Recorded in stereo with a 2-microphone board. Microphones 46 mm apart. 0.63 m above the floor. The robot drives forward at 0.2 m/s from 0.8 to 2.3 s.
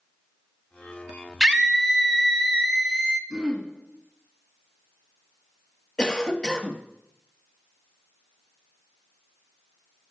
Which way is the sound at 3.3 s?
20° right (ahead or behind).